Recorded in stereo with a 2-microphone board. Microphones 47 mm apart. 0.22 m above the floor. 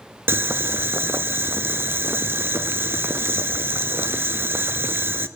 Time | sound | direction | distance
0.3 | boiling | 50° right (ahead or behind) | 0.7 m